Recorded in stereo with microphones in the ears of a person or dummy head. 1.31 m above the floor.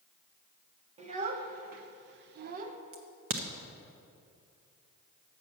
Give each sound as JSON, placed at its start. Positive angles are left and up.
{"t": 1.0, "sound": "a child speaking", "side_deg": -35, "distance_m": 0.9}
{"t": 2.9, "sound": "a crack", "side_deg": -50, "distance_m": 0.6}